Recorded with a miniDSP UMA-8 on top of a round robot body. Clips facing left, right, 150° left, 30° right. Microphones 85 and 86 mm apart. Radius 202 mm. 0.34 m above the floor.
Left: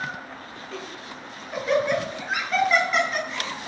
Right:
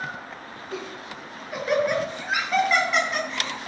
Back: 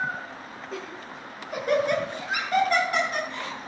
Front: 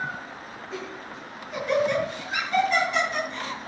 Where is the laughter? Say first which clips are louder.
Right 3 dB, front 1 dB; 170° right, 6 m; by 3.6 s straight behind, 8.5 m.